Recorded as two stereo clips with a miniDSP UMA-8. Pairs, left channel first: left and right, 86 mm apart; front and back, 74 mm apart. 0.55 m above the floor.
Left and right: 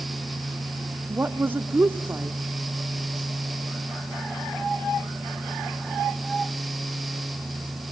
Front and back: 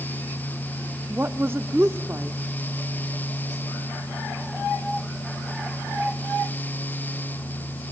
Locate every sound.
1.1 s a woman speaking: 145° right, 0.9 m